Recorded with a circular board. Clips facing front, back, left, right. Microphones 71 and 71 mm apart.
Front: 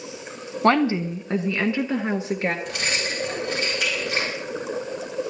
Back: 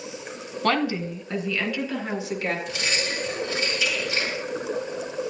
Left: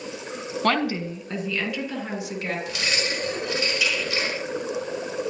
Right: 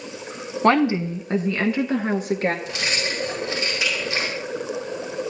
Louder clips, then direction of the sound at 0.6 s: Front 5 dB, right 6 dB; 35° right.